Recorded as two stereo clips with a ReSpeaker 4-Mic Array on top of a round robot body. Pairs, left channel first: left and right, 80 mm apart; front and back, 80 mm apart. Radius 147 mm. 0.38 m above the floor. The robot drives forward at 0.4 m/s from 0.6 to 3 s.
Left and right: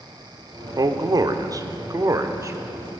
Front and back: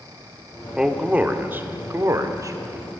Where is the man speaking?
100° right, 1.1 m; by 2.6 s 140° right, 1.4 m.